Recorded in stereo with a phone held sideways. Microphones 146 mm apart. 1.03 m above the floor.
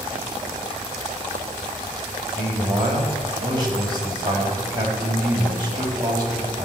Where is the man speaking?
30° right (ahead or behind), 2.5 m.